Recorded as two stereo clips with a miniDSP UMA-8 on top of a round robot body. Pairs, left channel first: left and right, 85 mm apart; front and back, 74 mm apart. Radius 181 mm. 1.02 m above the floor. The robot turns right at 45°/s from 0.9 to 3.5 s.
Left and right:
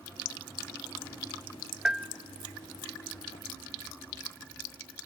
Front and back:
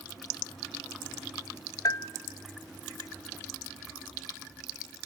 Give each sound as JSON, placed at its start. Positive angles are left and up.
{"t": 1.9, "sound": "a bell", "azimuth_deg": -10, "distance_m": 0.8}